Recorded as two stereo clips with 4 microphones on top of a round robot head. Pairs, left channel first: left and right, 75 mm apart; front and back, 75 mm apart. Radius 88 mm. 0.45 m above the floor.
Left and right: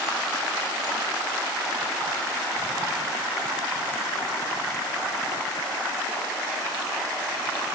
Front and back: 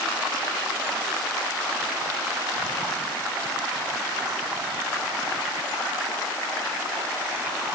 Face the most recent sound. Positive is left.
No sound to turn to.